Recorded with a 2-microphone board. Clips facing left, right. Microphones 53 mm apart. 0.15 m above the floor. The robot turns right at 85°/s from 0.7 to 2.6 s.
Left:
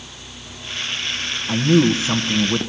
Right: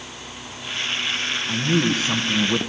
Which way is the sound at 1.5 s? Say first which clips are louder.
Left 6 dB; 20° left (ahead or behind).